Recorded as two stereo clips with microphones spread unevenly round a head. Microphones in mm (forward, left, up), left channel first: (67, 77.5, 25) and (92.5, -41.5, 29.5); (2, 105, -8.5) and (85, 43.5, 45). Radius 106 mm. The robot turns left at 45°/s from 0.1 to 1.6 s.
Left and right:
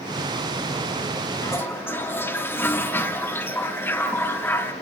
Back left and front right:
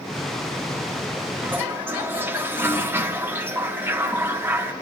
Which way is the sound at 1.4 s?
40° left.